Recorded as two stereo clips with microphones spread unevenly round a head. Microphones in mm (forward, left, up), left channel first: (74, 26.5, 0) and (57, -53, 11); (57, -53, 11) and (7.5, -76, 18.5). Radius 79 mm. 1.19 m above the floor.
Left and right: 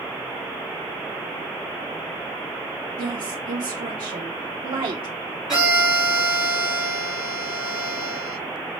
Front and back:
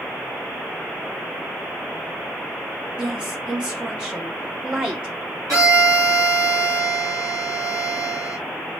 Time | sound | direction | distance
3.0 | a woman speaking | 85° right | 0.7 m
5.5 | a violin | 170° left | 1.8 m